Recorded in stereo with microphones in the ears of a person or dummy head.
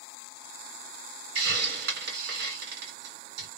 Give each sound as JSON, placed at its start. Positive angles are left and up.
{"t": 1.4, "sound": "a hiss", "side_deg": -65, "distance_m": 1.8}